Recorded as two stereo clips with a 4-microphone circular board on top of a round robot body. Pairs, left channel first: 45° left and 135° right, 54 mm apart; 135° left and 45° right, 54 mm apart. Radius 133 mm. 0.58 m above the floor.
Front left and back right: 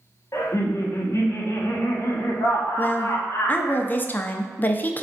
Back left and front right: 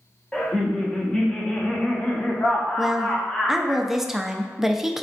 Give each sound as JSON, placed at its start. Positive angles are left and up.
{"t": 0.3, "sound": "laughter", "azimuth_deg": 60, "distance_m": 1.2}
{"t": 2.8, "sound": "a woman speaking", "azimuth_deg": 30, "distance_m": 0.6}